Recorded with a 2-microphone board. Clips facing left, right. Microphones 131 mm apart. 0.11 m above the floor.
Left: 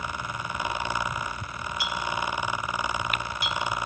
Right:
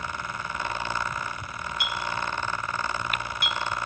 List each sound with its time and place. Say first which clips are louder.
1.8 s a clink: left 1 dB; 60° right (ahead or behind), 2.0 m